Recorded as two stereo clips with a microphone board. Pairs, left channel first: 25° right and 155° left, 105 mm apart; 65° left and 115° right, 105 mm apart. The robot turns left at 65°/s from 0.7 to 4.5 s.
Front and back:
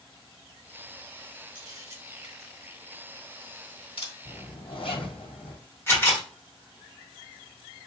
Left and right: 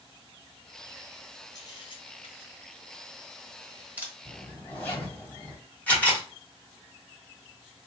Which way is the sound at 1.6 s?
120° left.